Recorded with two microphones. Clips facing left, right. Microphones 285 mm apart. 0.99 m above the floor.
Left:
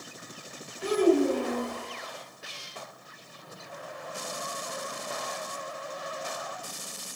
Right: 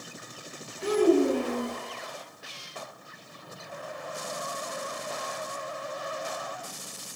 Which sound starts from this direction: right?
A child speaking, at 0.8 s.